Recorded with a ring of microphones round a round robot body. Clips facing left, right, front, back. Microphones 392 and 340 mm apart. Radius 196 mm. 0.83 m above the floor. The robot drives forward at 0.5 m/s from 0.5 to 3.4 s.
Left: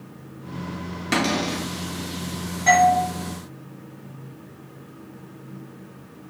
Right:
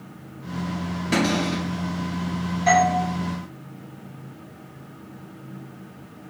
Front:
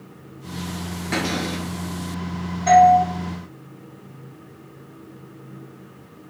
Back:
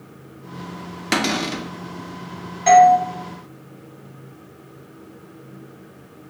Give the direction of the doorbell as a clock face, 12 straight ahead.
6 o'clock.